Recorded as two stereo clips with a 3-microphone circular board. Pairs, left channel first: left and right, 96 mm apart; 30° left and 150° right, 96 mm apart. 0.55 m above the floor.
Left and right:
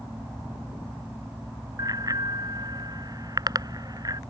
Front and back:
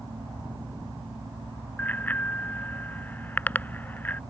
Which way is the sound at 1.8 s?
40° right.